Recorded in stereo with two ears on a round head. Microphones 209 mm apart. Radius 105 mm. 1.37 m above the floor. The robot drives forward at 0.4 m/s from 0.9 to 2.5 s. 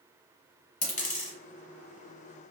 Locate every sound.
0.8 s a dropped coin: 30° left (ahead or behind), 1.8 m